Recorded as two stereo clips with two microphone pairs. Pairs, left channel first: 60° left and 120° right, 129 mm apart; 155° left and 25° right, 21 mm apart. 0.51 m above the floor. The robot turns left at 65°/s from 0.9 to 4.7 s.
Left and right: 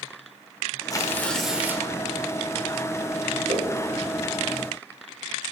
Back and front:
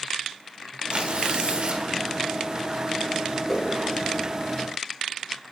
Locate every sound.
0.9 s tearing paper: 5° left, 1.0 m; by 1.9 s 60° right, 1.0 m
3.5 s a whoosh: 130° right, 2.5 m; by 3.7 s 145° right, 2.5 m